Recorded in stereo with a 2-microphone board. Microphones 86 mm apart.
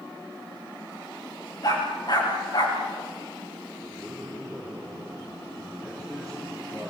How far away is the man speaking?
About 9 m.